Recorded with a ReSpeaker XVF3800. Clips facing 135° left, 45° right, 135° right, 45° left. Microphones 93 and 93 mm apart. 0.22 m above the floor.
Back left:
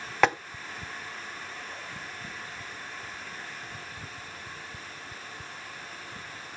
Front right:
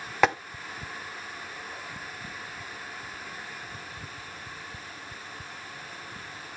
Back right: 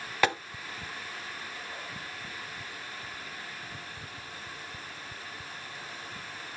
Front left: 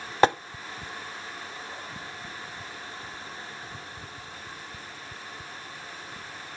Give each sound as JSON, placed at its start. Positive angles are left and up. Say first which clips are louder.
{"t": 0.2, "sound": "tapping", "louder": "even, front left 7 dB", "azimuth_deg": 40, "distance_m": 0.6}